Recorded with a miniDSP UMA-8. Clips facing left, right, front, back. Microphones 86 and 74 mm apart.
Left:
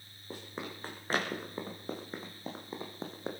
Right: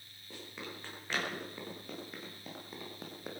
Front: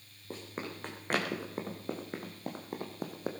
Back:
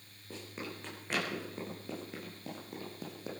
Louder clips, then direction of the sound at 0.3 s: Left 4 dB, front 3 dB; 45° left.